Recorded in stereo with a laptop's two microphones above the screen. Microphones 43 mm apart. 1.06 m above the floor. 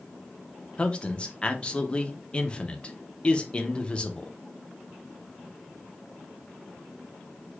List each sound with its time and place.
0.8 s a man speaking: 25° left (ahead or behind), 0.7 m